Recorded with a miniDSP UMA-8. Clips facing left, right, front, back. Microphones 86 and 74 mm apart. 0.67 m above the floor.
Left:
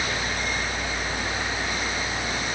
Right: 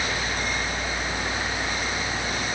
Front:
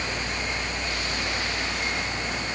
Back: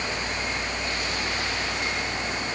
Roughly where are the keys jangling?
No keys jangling in this recording.